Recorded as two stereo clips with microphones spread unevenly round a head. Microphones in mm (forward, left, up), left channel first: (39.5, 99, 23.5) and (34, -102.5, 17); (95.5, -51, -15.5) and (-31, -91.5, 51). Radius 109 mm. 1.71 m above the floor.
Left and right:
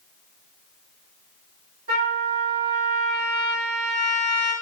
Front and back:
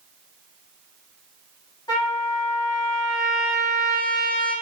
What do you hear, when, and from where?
1.9 s a trumpet: 55° right, 1.3 m